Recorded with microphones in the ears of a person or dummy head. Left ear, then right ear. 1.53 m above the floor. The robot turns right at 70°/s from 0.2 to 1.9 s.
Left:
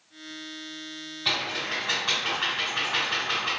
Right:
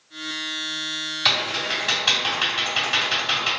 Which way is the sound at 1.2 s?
45° right (ahead or behind).